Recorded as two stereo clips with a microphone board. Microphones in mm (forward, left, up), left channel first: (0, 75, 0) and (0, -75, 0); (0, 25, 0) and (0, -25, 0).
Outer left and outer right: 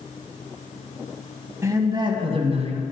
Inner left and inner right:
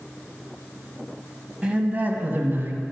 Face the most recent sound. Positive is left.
turn(degrees=-50)  # may be behind; listen again after turning